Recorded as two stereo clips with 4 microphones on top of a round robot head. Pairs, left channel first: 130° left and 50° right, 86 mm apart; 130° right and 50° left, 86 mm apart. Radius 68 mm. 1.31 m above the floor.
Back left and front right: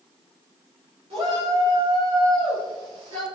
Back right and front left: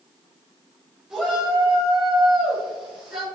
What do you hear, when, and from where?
1.1 s a shout: 30° right, 7 m; by 3.2 s 35° right, 8 m